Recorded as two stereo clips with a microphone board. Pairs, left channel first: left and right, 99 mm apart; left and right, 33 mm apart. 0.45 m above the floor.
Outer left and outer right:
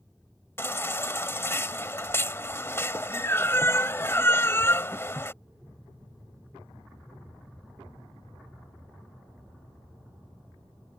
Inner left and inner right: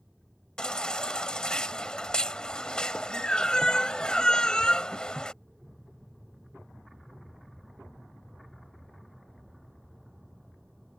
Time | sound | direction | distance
0.6 | a baby crying | 25° left (ahead or behind) | ?